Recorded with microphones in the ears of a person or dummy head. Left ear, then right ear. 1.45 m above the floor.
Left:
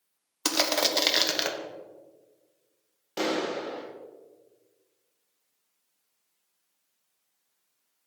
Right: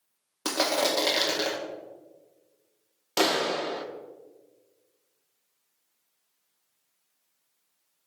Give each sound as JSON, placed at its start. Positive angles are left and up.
{"t": 0.5, "sound": "crushing", "side_deg": 70, "distance_m": 0.8}
{"t": 3.2, "sound": "a clap", "side_deg": -20, "distance_m": 0.7}